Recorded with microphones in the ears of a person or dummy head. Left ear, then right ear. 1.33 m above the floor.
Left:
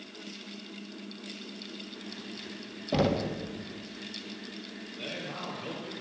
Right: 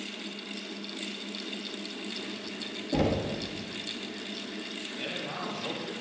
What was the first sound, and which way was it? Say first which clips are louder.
Knocking: left 1 dB; 70° left (ahead or behind).